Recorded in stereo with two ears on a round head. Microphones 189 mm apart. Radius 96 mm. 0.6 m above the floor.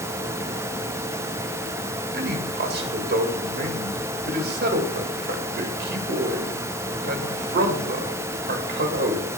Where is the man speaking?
55° right (ahead or behind), 1.9 m.